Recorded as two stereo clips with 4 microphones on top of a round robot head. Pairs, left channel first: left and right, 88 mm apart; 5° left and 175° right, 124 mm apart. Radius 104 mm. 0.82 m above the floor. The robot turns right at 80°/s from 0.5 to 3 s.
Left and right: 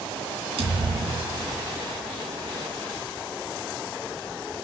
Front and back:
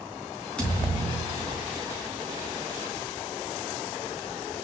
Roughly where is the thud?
Right.